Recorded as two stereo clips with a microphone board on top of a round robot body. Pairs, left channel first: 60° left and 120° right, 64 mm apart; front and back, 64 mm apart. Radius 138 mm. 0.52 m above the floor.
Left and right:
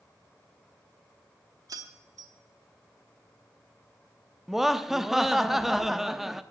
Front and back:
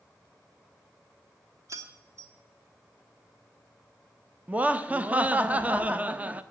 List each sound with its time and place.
1.7 s keys jangling: 145° right, 1.8 m
4.5 s laughter: 160° left, 1.0 m